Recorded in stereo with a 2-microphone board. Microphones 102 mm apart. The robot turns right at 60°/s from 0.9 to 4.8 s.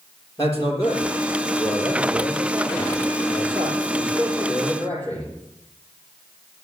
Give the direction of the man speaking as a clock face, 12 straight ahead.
7 o'clock.